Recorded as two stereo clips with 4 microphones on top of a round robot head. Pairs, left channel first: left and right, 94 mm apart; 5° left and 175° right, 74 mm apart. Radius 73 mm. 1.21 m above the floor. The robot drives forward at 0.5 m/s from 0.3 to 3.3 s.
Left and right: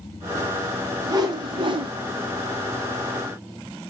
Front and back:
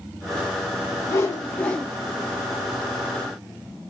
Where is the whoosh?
40° right, 0.7 m; by 1.9 s 80° right, 0.5 m.